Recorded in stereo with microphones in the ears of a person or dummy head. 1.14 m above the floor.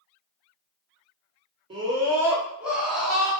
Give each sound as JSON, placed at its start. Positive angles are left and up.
{"t": 1.7, "sound": "a scream", "side_deg": -25, "distance_m": 1.0}